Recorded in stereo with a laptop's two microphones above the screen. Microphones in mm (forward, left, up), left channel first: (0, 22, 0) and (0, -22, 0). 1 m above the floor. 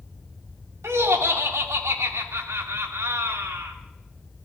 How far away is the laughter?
About 3 m.